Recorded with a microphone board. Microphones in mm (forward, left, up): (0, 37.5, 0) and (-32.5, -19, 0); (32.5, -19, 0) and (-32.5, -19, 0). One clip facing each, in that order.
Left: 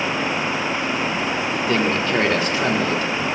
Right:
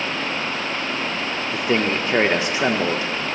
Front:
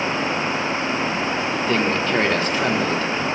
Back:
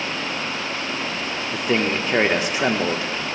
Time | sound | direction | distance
1.5 | a man speaking | 140° right | 0.9 m